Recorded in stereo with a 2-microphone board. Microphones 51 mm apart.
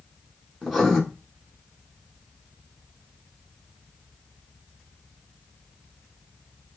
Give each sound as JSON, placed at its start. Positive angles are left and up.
{"t": 0.6, "sound": "writing", "side_deg": 0, "distance_m": 1.0}